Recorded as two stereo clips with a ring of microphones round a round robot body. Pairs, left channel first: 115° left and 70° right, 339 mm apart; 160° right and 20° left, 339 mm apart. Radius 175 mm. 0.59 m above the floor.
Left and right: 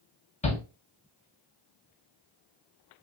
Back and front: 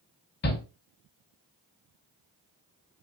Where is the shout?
170° left, 1.3 m.